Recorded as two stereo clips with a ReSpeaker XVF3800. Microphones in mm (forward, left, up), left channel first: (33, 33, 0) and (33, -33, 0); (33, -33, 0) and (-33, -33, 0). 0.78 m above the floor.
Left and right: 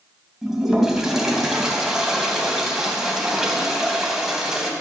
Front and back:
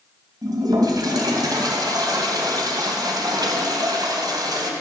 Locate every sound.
0.4 s a toilet flushing: 175° right, 2.5 m